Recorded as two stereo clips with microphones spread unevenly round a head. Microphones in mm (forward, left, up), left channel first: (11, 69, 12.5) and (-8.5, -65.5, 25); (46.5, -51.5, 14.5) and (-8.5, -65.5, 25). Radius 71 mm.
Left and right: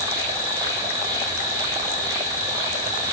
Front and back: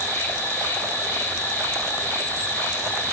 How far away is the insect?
About 6 m.